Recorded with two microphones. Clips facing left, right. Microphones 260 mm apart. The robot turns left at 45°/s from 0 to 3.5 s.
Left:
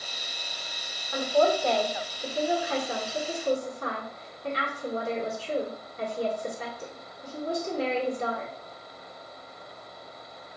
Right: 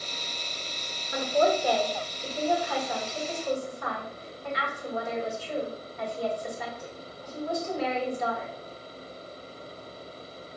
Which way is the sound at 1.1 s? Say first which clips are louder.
Left 1 dB; 20° right (ahead or behind).